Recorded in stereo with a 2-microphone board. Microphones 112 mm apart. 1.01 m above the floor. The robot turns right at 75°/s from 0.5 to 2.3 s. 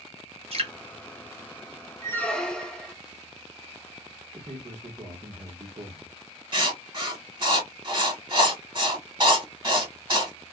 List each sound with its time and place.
0.5 s dripping: 55° right (ahead or behind), 0.9 m
2.0 s a squeak: 25° left (ahead or behind), 0.6 m; by 3.0 s 5° left (ahead or behind), 0.6 m
4.3 s a man speaking: 65° right (ahead or behind), 1.3 m
6.5 s writing: 40° right (ahead or behind), 1.6 m